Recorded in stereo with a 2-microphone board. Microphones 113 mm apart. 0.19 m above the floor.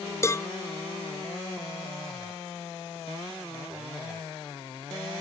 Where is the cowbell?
25° left (ahead or behind).